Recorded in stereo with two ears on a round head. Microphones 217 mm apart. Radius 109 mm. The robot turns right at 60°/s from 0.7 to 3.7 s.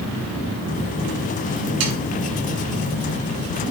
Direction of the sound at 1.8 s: 65° right (ahead or behind).